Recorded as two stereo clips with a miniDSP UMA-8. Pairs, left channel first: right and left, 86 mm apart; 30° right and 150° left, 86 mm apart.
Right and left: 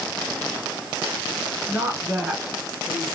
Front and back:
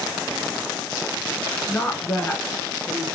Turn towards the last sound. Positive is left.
turn(degrees=-10)